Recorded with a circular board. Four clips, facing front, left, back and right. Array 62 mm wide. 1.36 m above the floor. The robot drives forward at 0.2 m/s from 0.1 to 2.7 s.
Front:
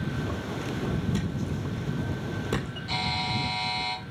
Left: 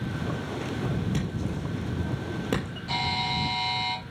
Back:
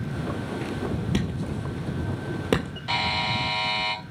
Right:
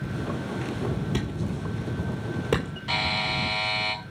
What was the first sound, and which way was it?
A thud, 170° right.